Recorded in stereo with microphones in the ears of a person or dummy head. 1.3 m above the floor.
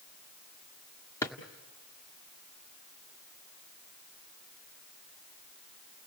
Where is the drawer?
15° left (ahead or behind), 1.4 m.